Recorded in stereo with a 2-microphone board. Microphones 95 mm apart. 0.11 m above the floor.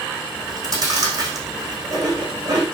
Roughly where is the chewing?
Right.